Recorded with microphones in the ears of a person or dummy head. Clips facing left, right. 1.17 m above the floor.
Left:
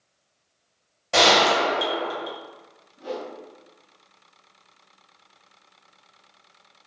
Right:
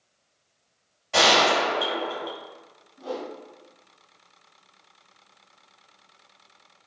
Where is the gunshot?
60° left (ahead or behind), 1.0 m.